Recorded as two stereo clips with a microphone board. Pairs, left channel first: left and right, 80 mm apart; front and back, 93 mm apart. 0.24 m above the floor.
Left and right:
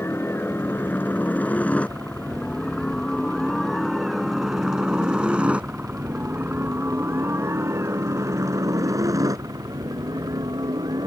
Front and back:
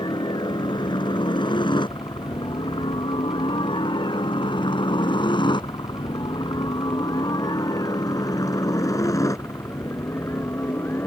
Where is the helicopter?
30° left; by 11.1 s 60° right.